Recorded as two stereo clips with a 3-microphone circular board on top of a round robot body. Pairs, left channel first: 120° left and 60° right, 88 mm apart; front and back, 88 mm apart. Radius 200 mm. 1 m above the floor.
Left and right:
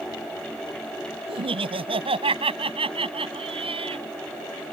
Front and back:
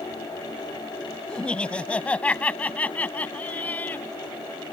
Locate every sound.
1.3 s laughter: 80° right; by 4.0 s 70° right